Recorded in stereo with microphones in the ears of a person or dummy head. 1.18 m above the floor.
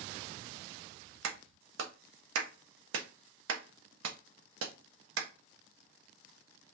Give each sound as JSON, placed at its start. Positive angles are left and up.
{"t": 1.2, "sound": "a clap", "side_deg": -80, "distance_m": 1.2}